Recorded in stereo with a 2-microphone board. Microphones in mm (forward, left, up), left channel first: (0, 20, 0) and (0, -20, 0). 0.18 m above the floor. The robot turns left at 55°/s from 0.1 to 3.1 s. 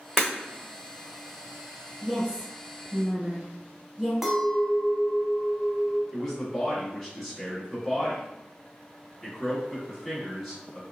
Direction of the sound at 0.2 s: Centre (ahead or behind).